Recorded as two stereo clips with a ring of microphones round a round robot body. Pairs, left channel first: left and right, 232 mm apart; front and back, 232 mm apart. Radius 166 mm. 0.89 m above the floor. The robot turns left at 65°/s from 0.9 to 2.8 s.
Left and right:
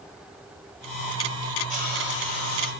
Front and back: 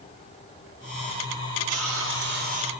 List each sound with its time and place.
1.7 s a hiss: 175° right, 1.5 m; by 2.7 s 115° left, 1.5 m